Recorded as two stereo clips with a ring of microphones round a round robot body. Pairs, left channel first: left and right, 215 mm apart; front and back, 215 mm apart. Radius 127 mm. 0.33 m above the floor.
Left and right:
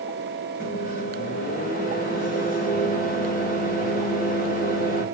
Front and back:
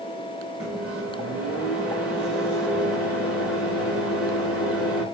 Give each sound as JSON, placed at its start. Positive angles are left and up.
{"t": 0.6, "sound": "a microwave", "azimuth_deg": 95, "distance_m": 0.9}